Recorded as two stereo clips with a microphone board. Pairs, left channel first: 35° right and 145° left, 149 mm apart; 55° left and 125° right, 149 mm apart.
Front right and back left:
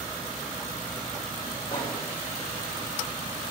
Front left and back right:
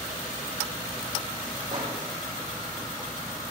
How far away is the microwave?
About 3.5 m.